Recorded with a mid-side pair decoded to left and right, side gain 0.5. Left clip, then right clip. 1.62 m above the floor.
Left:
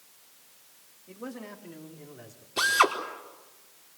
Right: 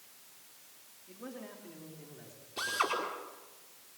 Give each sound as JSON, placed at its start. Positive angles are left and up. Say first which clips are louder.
{"t": 1.1, "sound": "a man speaking", "louder": "left 5 dB", "azimuth_deg": 40, "distance_m": 4.0}
{"t": 2.6, "sound": "a drill", "louder": "left 10 dB", "azimuth_deg": 55, "distance_m": 4.5}